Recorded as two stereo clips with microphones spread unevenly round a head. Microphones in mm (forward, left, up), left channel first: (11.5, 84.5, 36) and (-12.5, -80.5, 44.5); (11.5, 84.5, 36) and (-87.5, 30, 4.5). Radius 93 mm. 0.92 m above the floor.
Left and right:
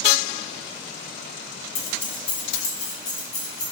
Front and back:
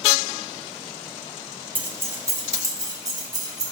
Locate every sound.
1.8 s keys jangling: 135° left, 1.2 m; by 3.6 s 155° left, 3.5 m